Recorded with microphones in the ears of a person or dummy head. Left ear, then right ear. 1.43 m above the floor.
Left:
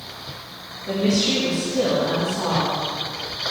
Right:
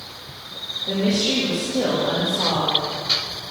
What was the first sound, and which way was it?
A woman speaking, 15° right (ahead or behind).